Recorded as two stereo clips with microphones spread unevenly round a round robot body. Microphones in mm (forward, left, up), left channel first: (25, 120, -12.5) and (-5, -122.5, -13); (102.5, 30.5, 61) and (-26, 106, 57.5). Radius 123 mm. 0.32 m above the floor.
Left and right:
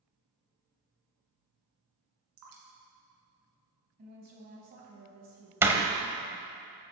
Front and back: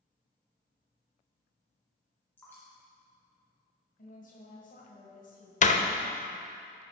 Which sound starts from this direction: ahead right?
A woman speaking, at 4.0 s.